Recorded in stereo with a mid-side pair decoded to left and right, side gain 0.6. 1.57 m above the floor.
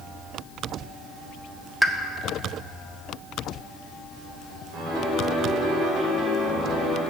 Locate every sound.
1.8 s a pop: 5° right, 0.7 m
4.7 s a piano: 55° right, 3.5 m